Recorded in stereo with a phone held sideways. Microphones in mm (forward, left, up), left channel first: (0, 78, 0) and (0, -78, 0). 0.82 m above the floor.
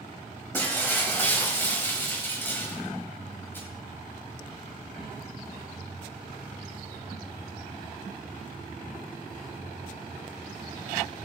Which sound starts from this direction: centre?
Breaking glass, at 0.5 s.